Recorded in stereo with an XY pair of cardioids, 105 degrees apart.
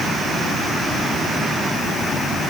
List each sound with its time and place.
Only background noise.